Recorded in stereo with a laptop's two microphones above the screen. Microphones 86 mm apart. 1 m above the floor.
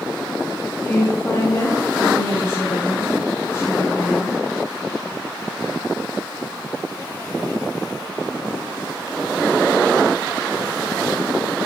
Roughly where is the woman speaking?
Left.